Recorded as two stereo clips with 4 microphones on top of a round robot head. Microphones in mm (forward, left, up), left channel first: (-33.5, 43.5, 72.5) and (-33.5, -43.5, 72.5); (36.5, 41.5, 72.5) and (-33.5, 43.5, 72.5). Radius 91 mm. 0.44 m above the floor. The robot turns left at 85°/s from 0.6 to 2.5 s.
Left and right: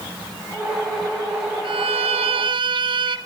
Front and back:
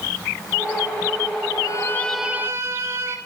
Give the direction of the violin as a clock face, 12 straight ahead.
2 o'clock.